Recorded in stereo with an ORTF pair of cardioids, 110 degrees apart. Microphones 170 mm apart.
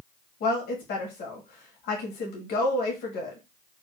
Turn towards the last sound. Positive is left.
turn(degrees=70)